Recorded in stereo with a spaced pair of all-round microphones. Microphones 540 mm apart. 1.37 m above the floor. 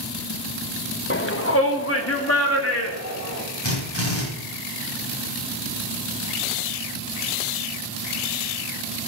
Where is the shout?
20° left (ahead or behind), 1.2 m; by 3.4 s 25° left (ahead or behind), 4 m.